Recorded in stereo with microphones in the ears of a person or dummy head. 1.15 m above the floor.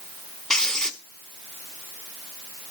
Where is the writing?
Centre (ahead or behind), 1.6 m.